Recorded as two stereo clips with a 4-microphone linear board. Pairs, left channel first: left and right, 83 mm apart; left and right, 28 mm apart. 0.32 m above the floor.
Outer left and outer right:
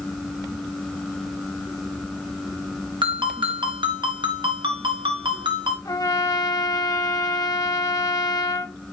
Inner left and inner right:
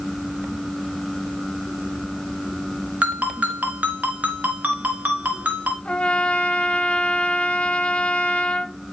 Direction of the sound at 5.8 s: 45° left (ahead or behind).